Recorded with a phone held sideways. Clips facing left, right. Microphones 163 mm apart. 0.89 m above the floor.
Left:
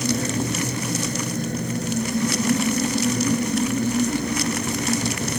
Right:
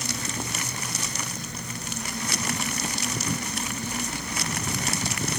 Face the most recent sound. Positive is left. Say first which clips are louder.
# left 10 dB
turn(degrees=55)  # may be behind; listen again after turning